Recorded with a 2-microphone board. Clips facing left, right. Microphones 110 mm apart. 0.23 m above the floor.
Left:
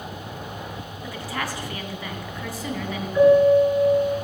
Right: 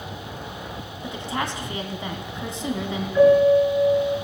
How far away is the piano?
About 2.5 m.